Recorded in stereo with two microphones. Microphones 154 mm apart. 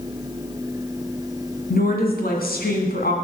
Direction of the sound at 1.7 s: 75° left (ahead or behind).